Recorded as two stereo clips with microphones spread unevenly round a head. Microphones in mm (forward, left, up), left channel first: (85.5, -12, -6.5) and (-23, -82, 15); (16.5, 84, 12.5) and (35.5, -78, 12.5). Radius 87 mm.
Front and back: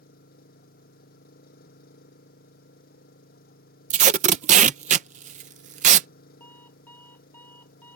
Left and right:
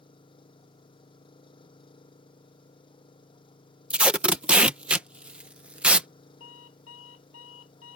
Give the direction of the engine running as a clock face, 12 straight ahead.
11 o'clock.